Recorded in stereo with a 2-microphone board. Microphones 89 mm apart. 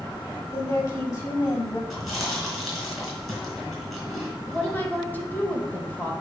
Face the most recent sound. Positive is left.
turn(degrees=20)  # may be behind; listen again after turning